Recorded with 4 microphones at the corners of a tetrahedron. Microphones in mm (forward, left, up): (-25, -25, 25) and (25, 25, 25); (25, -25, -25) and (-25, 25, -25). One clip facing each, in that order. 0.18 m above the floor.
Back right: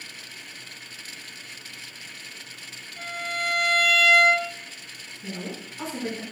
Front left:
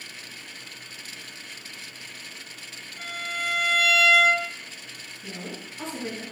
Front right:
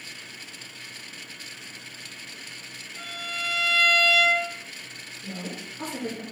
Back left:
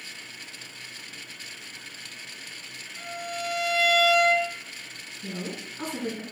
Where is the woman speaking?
155° left, 1.8 m.